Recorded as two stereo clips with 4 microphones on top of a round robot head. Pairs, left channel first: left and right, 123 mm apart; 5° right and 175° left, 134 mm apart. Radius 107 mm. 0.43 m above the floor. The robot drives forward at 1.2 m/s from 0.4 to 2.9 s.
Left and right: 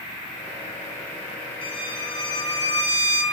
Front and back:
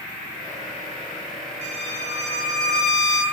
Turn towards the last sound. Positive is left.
turn(degrees=145)